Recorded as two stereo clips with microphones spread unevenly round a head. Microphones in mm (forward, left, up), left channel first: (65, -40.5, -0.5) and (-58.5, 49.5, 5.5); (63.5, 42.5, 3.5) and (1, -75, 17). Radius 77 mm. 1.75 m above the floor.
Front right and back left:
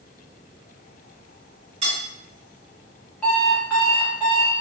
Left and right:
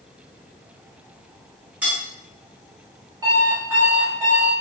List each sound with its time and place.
1.8 s cutlery clinking: 175° left, 1.4 m
3.2 s an alarm clock: 120° right, 1.1 m